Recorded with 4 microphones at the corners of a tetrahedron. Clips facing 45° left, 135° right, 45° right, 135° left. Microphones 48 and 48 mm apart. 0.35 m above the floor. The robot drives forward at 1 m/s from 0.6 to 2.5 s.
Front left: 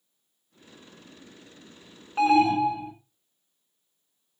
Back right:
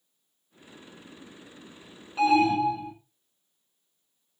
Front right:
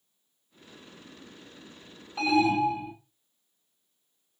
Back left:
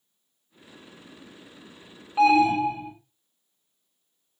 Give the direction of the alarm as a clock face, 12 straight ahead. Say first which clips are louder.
Front left 1 dB, back left 5 dB; 9 o'clock.